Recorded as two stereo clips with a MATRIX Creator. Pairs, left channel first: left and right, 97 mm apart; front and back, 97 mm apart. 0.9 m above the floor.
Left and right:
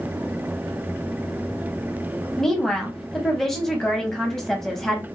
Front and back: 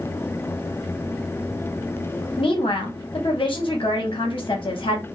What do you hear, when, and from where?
2.4 s a woman speaking: 5° left, 0.8 m